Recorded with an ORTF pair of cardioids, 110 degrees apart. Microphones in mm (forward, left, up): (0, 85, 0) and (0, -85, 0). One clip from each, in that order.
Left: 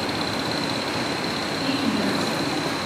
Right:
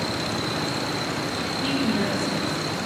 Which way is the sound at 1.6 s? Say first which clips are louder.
Even; 10° right.